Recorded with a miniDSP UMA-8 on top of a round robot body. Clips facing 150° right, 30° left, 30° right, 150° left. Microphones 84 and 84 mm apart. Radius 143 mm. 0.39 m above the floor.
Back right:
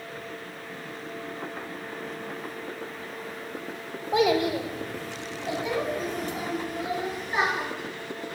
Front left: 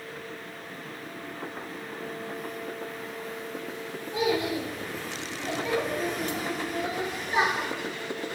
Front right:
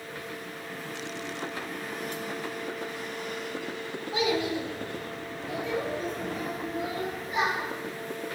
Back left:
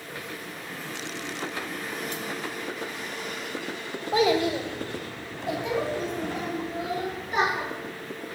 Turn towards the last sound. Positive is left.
turn(degrees=110)